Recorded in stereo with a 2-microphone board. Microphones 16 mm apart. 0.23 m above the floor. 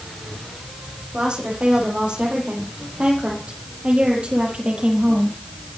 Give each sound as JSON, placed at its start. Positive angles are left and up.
{"t": 1.1, "sound": "a woman speaking", "side_deg": -80, "distance_m": 9.0}